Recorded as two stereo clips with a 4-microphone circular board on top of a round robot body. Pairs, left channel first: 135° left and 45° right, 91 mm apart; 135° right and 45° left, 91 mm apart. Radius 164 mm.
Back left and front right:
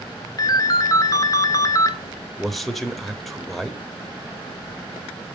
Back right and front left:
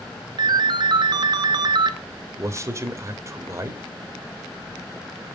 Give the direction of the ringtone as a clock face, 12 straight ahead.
9 o'clock.